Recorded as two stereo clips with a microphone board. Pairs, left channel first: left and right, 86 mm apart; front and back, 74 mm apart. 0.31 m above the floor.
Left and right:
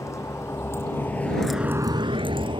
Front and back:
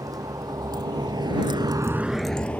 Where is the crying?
I don't hear crying.